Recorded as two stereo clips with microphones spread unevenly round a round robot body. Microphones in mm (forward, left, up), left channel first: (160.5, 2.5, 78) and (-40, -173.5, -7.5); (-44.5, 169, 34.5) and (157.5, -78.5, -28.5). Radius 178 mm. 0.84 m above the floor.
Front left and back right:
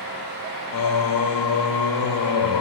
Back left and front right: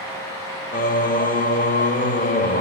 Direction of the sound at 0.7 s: 60° left.